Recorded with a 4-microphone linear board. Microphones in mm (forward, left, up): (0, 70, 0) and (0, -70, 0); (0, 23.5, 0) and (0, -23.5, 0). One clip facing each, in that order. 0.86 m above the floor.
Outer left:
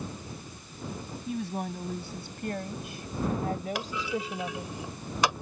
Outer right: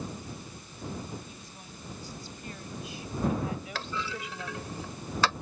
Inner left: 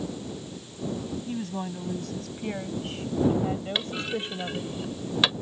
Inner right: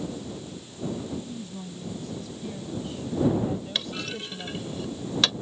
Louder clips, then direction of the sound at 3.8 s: Outer left 4 dB, inner left 3 dB; 15° left (ahead or behind).